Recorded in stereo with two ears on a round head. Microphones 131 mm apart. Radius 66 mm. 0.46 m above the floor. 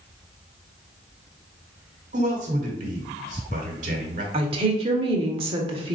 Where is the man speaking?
50° right (ahead or behind), 1.3 m.